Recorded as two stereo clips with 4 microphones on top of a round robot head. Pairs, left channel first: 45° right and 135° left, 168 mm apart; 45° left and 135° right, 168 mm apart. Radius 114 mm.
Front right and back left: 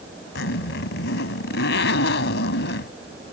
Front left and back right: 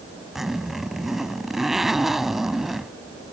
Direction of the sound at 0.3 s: 45° right.